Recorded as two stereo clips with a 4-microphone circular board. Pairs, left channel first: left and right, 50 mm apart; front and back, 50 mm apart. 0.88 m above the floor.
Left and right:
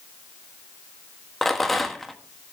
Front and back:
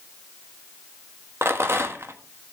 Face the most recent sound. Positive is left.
turn(degrees=175)